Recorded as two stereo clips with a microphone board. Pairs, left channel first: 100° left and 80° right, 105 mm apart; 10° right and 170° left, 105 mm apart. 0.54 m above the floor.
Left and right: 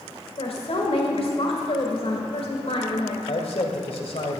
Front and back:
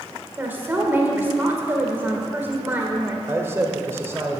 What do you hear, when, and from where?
0.4 s a woman speaking: 100° left, 2 m
3.3 s a man speaking: 105° left, 1.9 m